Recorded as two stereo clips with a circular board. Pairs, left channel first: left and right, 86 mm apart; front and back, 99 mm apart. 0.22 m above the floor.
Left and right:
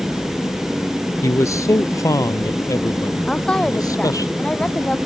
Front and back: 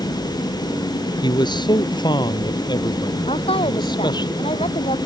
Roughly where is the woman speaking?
Ahead.